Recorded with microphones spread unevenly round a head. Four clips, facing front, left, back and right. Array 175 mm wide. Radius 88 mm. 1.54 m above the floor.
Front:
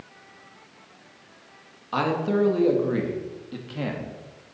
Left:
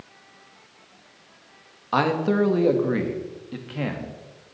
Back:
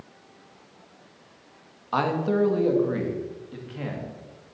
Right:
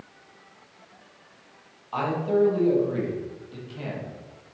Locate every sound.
1.9 s a man speaking: 85° left, 2.0 m; by 4.2 s 50° left, 2.5 m